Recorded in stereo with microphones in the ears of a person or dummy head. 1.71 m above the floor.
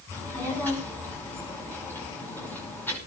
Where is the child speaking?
15° left (ahead or behind), 5.5 m.